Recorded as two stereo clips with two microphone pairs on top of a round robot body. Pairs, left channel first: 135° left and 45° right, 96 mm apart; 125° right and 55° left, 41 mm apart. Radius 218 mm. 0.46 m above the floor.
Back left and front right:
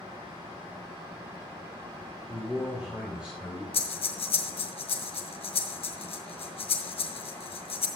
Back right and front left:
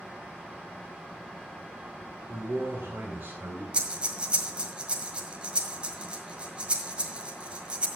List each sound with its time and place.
2.3 s a man speaking: 35° left, 3 m
3.7 s breathing: 115° left, 1.7 m